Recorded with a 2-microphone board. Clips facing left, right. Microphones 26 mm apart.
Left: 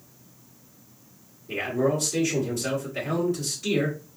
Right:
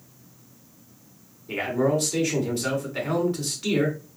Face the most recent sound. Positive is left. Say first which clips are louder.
# right 1 dB
turn(degrees=-45)  # may be behind; listen again after turning